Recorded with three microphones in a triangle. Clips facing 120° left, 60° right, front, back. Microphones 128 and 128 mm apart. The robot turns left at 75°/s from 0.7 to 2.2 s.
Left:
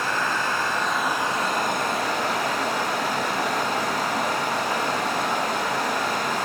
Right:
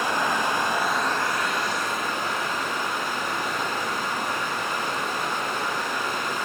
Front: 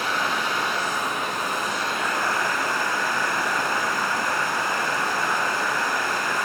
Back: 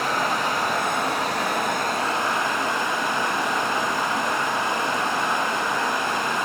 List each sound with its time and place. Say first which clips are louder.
0.0 s running water: right 1 dB, back 2 dB; 130° right, 0.7 m; by 6.5 s 115° left, 0.7 m